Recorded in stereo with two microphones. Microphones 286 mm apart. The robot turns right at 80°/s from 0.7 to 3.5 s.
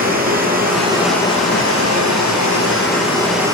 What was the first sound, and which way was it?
Running water, 30° right.